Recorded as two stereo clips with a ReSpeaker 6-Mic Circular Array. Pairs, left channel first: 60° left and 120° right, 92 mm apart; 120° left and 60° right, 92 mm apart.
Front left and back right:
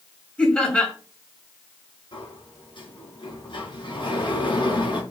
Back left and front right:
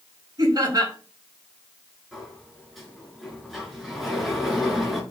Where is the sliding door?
30° left, 6.5 m.